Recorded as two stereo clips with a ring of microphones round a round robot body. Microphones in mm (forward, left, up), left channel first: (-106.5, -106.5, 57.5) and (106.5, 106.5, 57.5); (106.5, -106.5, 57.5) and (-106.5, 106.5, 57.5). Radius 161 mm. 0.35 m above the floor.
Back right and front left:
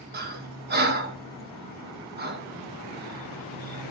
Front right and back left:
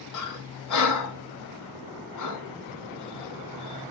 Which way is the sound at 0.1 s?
15° right.